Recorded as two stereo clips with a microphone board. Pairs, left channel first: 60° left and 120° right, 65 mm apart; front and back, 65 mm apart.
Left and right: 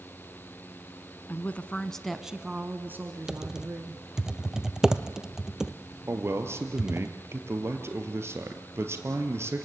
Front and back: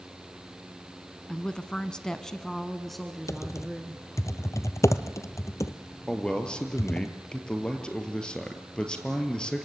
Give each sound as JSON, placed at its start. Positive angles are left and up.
{"t": 1.3, "sound": "a woman speaking", "azimuth_deg": 60, "distance_m": 1.1}
{"t": 3.3, "sound": "typing on a keyboard", "azimuth_deg": -40, "distance_m": 0.9}
{"t": 6.1, "sound": "a man speaking", "azimuth_deg": -75, "distance_m": 2.5}